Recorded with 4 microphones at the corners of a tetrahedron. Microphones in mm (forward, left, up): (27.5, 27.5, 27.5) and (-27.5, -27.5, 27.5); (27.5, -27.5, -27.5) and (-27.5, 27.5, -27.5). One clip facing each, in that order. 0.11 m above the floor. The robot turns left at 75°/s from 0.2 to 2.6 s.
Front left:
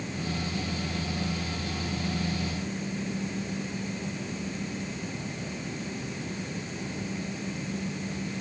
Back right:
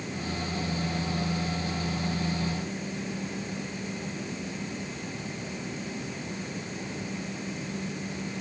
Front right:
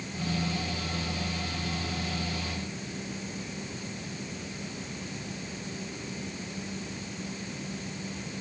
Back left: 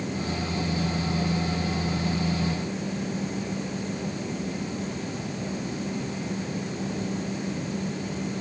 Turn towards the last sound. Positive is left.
No sound to turn to.